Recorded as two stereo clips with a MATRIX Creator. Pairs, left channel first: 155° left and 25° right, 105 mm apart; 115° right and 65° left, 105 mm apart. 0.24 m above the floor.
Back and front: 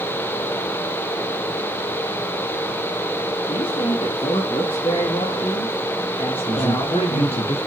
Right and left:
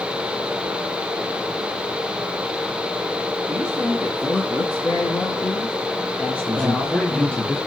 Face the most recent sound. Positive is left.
turn(degrees=170)